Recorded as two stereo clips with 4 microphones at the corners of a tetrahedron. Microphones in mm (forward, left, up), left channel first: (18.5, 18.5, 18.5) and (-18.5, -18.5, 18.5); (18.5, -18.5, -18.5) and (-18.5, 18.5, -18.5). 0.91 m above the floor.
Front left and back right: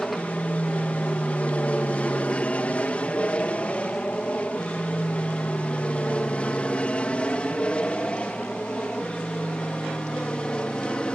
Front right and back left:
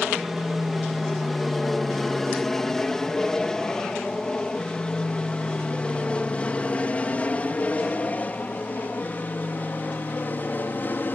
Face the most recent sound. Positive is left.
turn(degrees=-20)